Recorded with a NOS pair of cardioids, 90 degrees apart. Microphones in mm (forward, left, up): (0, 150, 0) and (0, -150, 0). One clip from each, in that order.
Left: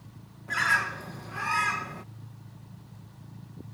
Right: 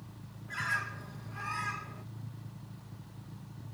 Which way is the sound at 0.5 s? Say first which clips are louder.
Left 9 dB; 65° left.